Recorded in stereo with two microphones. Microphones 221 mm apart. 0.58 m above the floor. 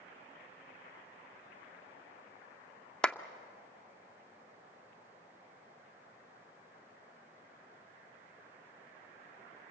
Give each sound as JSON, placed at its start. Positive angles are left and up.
{"t": 3.0, "sound": "a clap", "side_deg": 5, "distance_m": 0.6}